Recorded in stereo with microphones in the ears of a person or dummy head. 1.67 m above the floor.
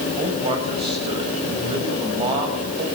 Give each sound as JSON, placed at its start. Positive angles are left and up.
{"t": 0.2, "sound": "a man speaking", "side_deg": -20, "distance_m": 7.5}